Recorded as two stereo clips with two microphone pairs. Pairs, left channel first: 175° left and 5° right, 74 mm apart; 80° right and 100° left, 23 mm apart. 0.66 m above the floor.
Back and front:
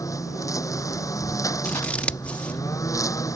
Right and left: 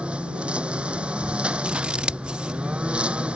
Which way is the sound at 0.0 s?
130° left.